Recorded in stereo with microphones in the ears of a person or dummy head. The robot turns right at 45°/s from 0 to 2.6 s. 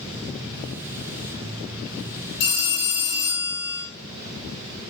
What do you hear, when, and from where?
2.4 s a phone ringing: 40° left (ahead or behind), 1.5 m; by 3.9 s 45° left (ahead or behind), 1.5 m